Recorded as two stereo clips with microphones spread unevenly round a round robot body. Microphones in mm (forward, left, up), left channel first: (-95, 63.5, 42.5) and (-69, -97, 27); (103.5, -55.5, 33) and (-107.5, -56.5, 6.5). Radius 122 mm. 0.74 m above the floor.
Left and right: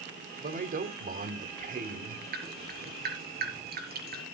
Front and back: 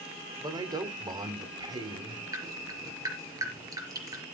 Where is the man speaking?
110° right, 1.9 m.